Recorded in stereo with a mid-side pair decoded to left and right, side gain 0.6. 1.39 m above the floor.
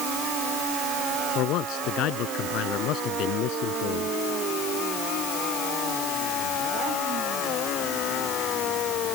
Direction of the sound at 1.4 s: 65° left.